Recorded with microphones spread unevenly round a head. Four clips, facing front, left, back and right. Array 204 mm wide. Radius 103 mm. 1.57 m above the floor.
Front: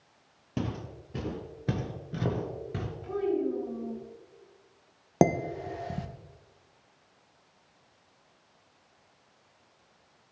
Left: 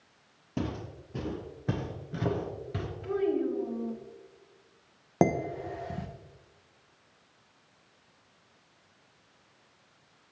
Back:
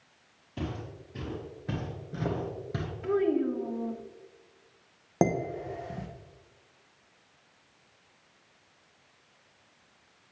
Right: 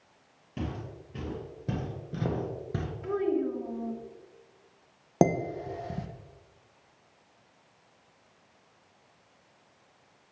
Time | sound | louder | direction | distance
0.6 | footsteps | left 2 dB, front 2 dB | 30° left | 2.5 m
3.0 | a child speaking | even, back 3 dB | 170° right | 1.9 m
5.2 | dishes clattering | right 1 dB, front 2 dB | 40° right | 0.7 m